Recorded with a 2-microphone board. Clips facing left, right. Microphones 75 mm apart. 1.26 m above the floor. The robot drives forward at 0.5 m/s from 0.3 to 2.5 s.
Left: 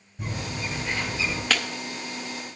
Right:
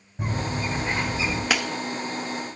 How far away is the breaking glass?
About 0.6 m.